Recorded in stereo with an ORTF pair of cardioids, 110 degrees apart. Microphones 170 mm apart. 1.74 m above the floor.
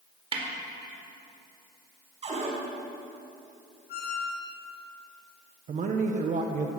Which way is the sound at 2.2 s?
40° right.